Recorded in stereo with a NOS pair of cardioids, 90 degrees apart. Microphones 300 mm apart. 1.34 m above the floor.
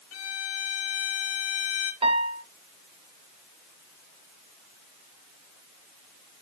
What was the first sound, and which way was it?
A violin, 55° left.